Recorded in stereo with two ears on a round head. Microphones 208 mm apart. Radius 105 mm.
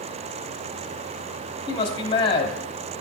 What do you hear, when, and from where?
1.7 s a man speaking: 20° left (ahead or behind), 1.3 m